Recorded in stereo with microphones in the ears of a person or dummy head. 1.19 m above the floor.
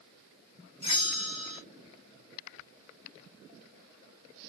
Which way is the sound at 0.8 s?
20° left (ahead or behind).